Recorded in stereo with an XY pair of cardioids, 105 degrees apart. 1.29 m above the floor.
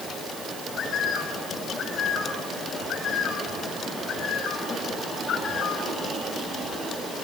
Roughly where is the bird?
Ahead left.